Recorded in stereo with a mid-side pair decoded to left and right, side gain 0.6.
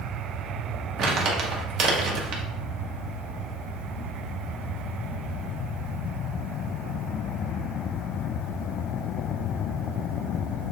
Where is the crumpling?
60° right, 1.2 m.